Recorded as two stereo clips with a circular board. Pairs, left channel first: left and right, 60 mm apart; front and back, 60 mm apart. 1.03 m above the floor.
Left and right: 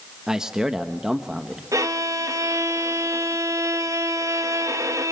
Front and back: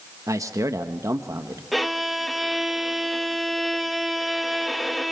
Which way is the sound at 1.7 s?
90° right.